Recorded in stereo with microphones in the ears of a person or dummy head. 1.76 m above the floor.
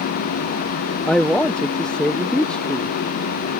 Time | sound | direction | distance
1.1 | a man speaking | 5° left (ahead or behind) | ?